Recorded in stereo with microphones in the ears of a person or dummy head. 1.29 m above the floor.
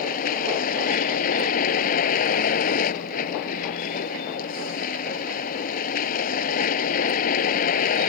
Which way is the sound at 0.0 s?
50° left (ahead or behind).